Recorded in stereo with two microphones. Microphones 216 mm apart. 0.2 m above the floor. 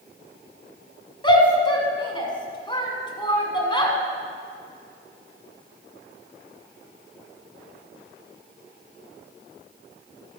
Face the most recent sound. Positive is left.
turn(degrees=20)  # may be behind; listen again after turning